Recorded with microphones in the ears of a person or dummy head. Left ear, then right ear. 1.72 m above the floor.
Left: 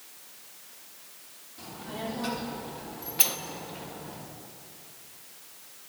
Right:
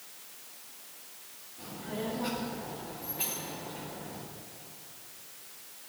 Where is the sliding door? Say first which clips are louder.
Left 9 dB; 55° left (ahead or behind), 0.8 m.